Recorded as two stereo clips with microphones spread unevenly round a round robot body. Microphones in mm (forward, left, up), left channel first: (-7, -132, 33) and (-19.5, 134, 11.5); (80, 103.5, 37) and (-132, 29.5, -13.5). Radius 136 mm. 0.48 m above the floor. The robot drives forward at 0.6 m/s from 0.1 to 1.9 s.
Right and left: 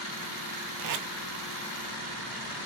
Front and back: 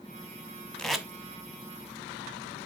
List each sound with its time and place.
0.8 s tape being pulled: 105° left, 1.3 m; by 1.1 s 115° left, 1.3 m